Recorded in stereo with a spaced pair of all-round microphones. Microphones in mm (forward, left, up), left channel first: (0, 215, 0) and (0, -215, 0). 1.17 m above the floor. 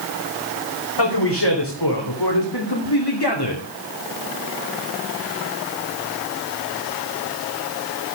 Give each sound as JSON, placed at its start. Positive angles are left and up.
{"t": 1.0, "sound": "a man speaking", "side_deg": 65, "distance_m": 4.0}